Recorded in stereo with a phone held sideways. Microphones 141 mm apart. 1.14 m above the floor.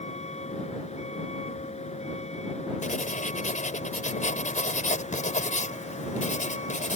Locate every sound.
0.0 s a vehicle: 50° left (ahead or behind)
2.8 s writing: 60° left (ahead or behind)